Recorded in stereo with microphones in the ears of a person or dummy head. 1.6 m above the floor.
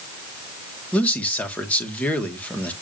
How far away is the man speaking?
About 1.6 m.